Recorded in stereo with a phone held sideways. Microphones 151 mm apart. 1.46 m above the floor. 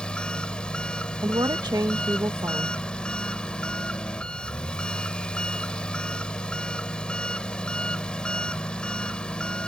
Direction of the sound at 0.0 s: 5° left (ahead or behind).